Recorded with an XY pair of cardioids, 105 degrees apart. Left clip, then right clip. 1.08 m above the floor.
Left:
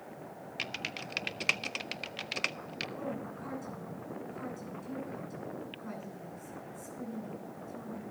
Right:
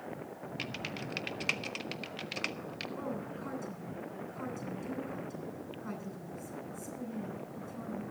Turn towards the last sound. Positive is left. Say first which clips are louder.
# even
turn(degrees=-20)